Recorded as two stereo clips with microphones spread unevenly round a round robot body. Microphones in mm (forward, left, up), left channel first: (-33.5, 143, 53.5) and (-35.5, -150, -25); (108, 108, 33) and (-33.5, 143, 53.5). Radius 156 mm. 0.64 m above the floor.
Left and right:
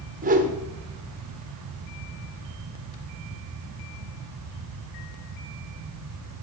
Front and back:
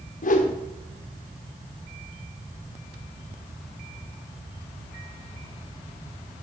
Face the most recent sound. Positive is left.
turn(degrees=-35)